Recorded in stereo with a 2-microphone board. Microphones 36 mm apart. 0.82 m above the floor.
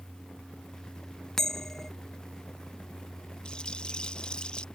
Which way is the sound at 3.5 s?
25° left (ahead or behind).